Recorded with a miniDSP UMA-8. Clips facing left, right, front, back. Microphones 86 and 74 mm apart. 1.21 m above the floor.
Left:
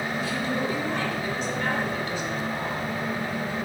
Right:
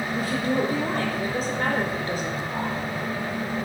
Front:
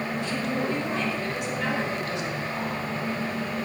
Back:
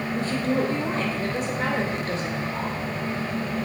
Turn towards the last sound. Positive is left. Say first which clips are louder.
# right 6 dB, back 6 dB
turn(degrees=-135)